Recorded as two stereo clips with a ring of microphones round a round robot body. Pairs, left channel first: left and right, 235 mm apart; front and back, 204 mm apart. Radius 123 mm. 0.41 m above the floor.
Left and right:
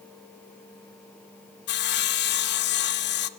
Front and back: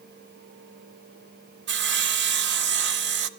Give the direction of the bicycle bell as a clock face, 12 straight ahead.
No bicycle bell in this recording.